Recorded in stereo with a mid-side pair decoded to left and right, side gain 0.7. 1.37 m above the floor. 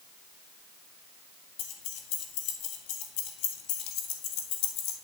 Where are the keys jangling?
70° left, 1.6 m.